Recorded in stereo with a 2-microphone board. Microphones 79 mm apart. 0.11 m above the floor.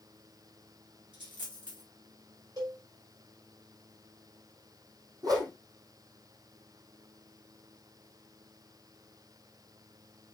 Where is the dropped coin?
80° right, 4.5 m.